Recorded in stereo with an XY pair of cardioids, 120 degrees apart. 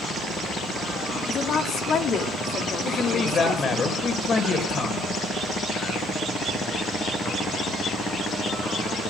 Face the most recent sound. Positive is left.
turn(degrees=40)